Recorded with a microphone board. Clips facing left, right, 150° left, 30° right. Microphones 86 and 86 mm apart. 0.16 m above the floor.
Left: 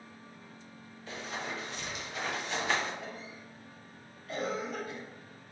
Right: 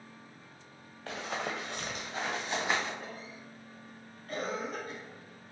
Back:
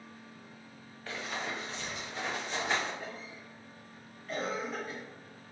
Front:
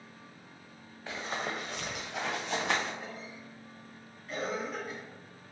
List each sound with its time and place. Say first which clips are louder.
1.1 s running footsteps: right 3 dB, front 2 dB; 110° right, 1.1 m; by 2.9 s 10° right, 2.5 m
3.0 s a cough: left 1 dB, even; 120° right, 1.6 m